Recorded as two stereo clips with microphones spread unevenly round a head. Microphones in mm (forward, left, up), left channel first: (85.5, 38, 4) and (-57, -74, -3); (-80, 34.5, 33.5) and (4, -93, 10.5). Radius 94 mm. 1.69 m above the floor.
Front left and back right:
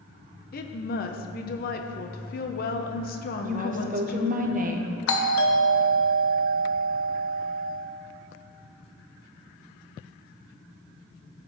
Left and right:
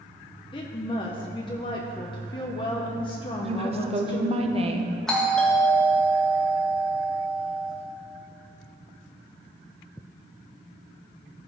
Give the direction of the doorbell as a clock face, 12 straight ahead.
11 o'clock.